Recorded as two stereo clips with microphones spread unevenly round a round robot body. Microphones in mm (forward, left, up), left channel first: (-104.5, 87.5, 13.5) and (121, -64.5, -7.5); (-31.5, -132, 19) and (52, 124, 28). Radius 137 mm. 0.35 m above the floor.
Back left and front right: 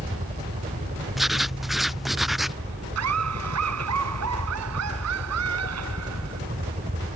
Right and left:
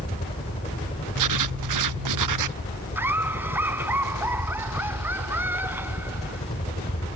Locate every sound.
0.0 s a helicopter: 65° right
1.2 s writing: 55° left
3.0 s laughter: 10° right